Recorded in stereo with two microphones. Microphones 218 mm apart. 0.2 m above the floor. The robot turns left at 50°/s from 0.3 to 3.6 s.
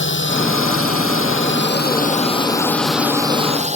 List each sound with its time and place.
0.0 s a drone: 60° left (ahead or behind); by 3.8 s 30° right (ahead or behind)